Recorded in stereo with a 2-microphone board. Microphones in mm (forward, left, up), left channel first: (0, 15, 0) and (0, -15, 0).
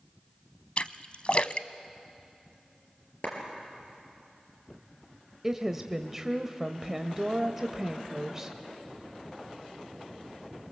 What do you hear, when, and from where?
0.8 s a splash: 45° left (ahead or behind), 0.5 m
3.2 s a clap: 55° left (ahead or behind), 4.5 m
5.4 s a woman speaking: 10° right (ahead or behind), 0.9 m